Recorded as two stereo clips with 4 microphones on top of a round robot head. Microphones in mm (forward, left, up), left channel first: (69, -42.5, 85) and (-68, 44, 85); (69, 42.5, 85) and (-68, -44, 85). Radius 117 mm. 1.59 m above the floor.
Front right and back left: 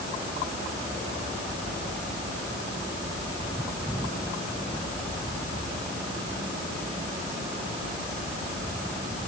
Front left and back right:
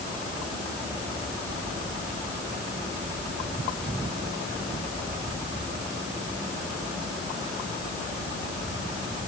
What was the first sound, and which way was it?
Only background noise.